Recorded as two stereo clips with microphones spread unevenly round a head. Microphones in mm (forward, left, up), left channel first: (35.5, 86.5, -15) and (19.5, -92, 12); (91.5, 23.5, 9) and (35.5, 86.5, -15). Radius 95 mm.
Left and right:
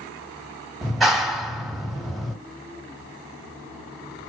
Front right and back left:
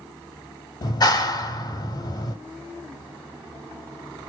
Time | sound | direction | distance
0.8 | a clap | 5° right | 1.6 m